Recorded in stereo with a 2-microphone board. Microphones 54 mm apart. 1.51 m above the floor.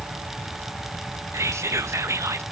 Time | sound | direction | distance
1.3 | whispering | 60° right (ahead or behind) | 0.5 m